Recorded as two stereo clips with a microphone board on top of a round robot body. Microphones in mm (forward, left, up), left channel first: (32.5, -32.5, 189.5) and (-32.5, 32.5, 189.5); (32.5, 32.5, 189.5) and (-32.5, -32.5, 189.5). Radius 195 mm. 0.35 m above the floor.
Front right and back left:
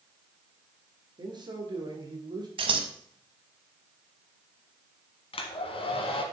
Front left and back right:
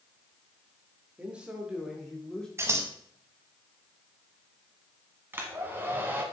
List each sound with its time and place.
1.2 s a man speaking: 155° left, 1.8 m; by 2.5 s 125° left, 1.7 m
2.6 s scissors: 160° left, 0.8 m
5.3 s a hair dryer: 65° right, 1.1 m